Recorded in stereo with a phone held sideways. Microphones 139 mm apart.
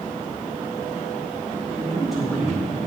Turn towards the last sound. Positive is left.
turn(degrees=0)  # may be behind; listen again after turning